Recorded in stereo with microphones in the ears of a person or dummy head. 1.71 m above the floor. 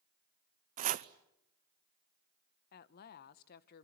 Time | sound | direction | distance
0.8 | chopping | 45° right (ahead or behind) | 0.7 m
2.7 | a woman speaking | 55° left (ahead or behind) | 1.1 m